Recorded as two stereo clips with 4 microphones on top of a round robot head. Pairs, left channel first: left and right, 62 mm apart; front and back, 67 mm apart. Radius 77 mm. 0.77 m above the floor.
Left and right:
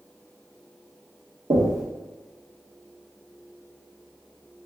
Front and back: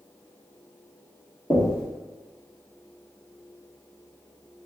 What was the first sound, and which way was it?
Knocking, 75° right.